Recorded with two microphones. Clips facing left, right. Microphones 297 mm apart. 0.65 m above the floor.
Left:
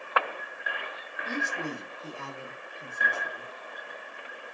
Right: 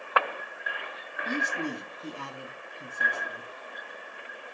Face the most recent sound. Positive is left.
turn(degrees=-40)  # may be behind; listen again after turning